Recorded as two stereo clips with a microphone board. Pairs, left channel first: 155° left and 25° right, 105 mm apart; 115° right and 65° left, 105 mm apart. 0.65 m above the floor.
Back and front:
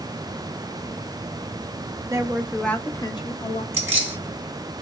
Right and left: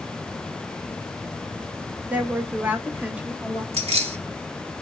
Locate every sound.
2.1 s a woman speaking: straight ahead, 0.6 m; by 3.6 s 145° left, 1.0 m
3.7 s keys jangling: 45° left, 1.9 m